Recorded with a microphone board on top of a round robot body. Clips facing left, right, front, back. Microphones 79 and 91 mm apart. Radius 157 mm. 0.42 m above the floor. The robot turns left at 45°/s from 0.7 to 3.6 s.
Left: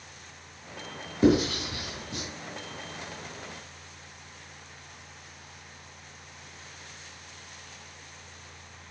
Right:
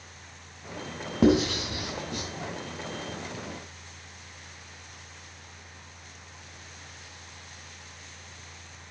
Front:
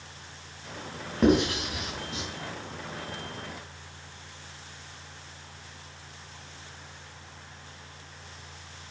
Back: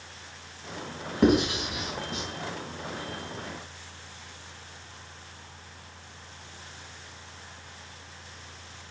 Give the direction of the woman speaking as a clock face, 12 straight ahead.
I don't hear a woman speaking.